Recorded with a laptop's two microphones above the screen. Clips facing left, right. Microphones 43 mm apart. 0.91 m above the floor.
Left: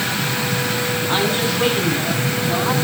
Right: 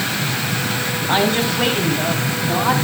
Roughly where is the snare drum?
I don't hear a snare drum.